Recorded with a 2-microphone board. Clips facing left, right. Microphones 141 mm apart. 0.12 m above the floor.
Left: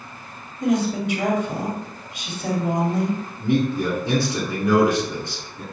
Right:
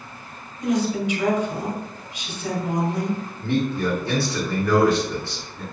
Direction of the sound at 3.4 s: 20° left (ahead or behind).